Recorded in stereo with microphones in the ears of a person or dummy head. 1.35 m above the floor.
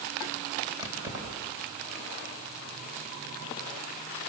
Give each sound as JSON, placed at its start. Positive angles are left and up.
{"t": 0.8, "sound": "keys jangling", "side_deg": -20, "distance_m": 4.5}